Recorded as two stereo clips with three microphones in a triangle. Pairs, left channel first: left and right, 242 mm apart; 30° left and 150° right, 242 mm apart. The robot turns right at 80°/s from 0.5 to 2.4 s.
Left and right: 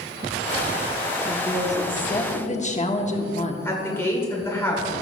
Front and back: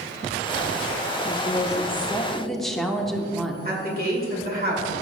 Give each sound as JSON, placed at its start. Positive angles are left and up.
{"t": 1.3, "sound": "a woman speaking", "azimuth_deg": 25, "distance_m": 1.0}
{"t": 3.6, "sound": "a woman speaking", "azimuth_deg": 170, "distance_m": 2.0}